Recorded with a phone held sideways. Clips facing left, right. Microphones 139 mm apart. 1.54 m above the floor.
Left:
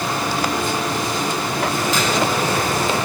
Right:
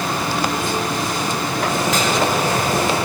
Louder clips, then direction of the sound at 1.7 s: Right 2 dB; 80° right.